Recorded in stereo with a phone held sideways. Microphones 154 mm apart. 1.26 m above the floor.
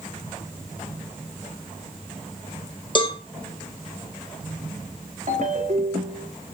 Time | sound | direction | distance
3.0 | a cowbell | 35° left (ahead or behind) | 1.2 m
5.3 | a ringtone | 60° right (ahead or behind) | 1.5 m